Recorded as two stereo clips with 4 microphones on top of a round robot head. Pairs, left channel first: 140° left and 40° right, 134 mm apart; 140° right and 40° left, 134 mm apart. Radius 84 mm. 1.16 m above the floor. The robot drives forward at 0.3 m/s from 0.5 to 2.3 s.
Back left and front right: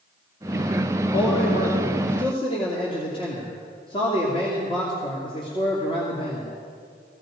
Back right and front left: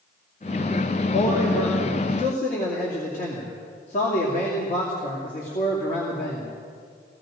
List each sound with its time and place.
1.1 s a man speaking: 170° right, 2.5 m